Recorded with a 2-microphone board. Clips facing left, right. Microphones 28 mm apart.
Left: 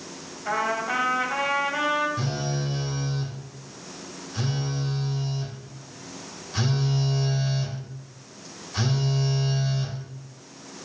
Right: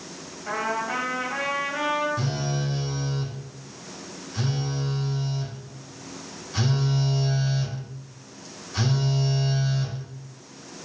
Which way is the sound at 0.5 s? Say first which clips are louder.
Left 2 dB; 30° left (ahead or behind).